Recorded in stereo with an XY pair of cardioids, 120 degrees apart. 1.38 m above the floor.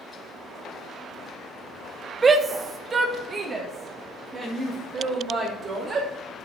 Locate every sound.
2.2 s a shout: 30° right, 0.6 m